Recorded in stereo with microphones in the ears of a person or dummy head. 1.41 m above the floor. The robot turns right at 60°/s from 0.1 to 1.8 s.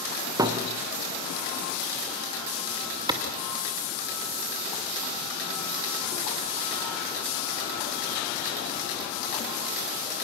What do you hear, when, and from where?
0.4 s a thud: 20° right (ahead or behind), 1.7 m; by 0.7 s 30° right (ahead or behind), 1.7 m
3.1 s a clap: 20° right (ahead or behind), 2.5 m